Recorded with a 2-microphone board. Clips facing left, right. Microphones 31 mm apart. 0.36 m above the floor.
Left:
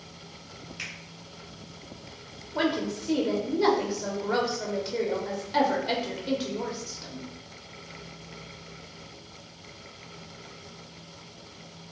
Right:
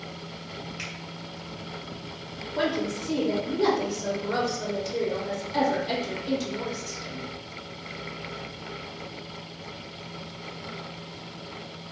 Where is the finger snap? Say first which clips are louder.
Left 1 dB; 5° right (ahead or behind), 1.9 m.